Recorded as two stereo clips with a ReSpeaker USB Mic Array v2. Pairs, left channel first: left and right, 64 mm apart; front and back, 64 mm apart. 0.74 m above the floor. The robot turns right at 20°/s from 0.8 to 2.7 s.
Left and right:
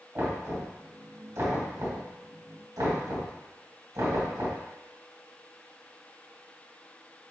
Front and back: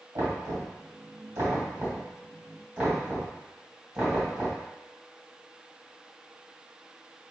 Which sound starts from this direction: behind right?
Knocking, at 0.1 s.